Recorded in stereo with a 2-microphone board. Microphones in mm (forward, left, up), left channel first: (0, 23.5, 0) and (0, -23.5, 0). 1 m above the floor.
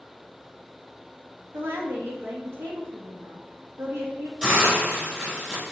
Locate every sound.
1.5 s a woman speaking: 60° right (ahead or behind), 1.4 m
4.4 s a hiss: 20° right (ahead or behind), 3.5 m